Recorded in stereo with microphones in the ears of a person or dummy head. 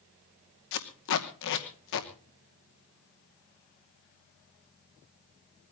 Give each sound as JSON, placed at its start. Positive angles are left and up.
{"t": 0.7, "sound": "tape being pulled", "side_deg": 65, "distance_m": 2.5}